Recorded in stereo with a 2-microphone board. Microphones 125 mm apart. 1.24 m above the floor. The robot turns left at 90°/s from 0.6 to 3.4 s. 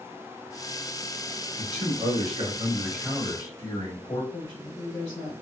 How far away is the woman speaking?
About 0.8 m.